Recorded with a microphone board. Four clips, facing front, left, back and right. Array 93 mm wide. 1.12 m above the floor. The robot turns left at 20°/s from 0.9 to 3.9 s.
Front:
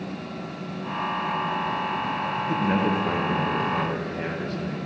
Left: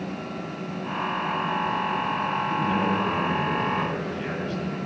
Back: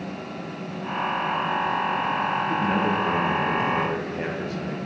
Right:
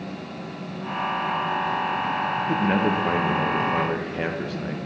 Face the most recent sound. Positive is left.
turn(degrees=-95)